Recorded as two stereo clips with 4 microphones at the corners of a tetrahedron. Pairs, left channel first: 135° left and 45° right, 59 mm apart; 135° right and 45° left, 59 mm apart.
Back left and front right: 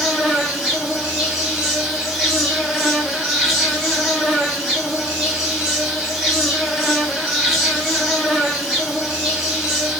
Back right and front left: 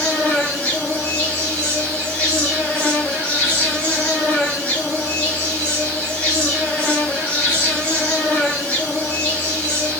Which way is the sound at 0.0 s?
125° right.